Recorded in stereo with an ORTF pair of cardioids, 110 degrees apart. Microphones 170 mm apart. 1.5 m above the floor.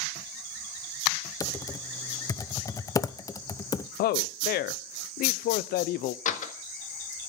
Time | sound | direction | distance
1.4 | typing on a keyboard | 20° left | 0.7 m
4.0 | a man speaking | 70° left | 0.8 m
6.2 | a door slam | 50° left | 1.8 m